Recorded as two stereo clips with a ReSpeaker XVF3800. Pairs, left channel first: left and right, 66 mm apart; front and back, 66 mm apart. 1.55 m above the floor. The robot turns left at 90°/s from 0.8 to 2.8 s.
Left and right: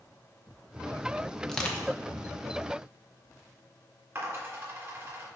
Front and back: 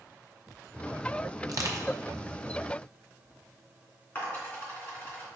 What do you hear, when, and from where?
1.4 s crushing: straight behind, 0.9 m; by 1.9 s 135° left, 0.9 m
4.2 s a dropped coin: 50° right, 2.5 m